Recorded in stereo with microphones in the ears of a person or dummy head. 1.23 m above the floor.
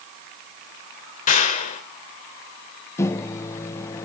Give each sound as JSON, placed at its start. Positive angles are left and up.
{"t": 1.3, "sound": "a clap", "side_deg": 40, "distance_m": 4.0}
{"t": 3.0, "sound": "a microwave", "side_deg": 15, "distance_m": 0.8}